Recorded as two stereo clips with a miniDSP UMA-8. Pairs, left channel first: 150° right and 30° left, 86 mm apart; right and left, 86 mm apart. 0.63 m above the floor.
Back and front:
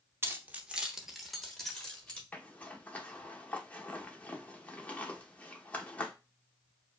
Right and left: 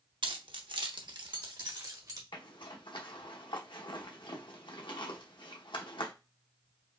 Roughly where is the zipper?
Right.